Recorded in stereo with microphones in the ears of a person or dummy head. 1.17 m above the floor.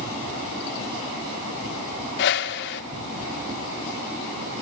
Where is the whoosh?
60° left (ahead or behind), 1.3 m.